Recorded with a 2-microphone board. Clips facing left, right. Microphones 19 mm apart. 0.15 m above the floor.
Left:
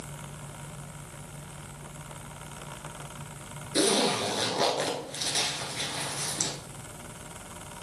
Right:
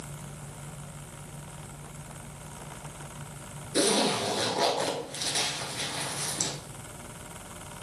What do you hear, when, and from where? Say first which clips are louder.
3.8 s a zipper: even; 20° left (ahead or behind), 1.5 m